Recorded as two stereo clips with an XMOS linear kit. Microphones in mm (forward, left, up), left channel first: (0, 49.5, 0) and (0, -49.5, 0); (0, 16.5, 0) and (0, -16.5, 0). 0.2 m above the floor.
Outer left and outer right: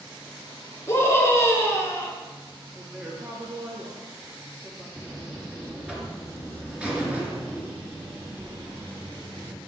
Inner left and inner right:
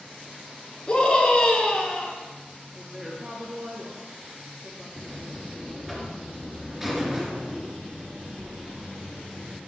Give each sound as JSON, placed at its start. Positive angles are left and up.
{"t": 0.9, "sound": "a scream", "side_deg": 25, "distance_m": 3.0}
{"t": 2.7, "sound": "a woman speaking", "side_deg": -20, "distance_m": 3.5}
{"t": 5.0, "sound": "a buzzer", "side_deg": -10, "distance_m": 3.0}